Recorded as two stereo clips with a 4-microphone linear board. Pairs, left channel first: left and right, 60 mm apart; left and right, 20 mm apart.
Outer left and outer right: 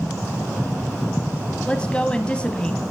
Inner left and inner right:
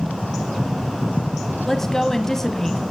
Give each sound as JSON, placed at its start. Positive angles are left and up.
{"t": 1.7, "sound": "a woman speaking", "side_deg": 15, "distance_m": 1.0}